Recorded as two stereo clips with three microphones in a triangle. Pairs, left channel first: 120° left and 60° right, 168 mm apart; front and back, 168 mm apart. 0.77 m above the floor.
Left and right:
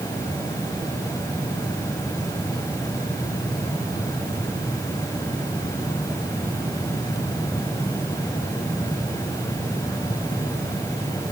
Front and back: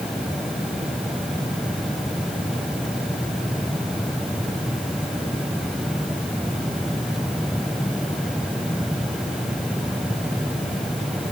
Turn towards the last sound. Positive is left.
No sound to turn to.